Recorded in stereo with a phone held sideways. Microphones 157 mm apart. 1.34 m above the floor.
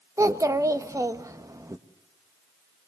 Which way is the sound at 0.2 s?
20° right (ahead or behind).